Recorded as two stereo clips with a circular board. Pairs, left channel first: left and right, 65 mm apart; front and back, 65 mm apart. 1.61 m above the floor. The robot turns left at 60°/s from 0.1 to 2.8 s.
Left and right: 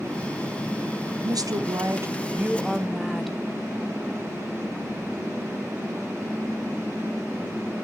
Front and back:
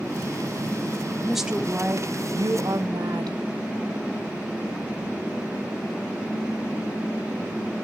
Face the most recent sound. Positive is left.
turn(degrees=180)